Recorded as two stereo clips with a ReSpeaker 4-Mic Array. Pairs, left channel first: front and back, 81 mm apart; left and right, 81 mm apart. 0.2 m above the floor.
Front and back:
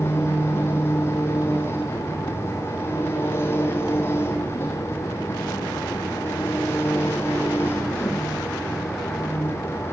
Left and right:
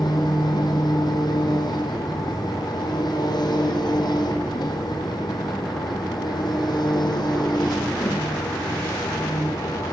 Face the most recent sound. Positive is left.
turn(degrees=60)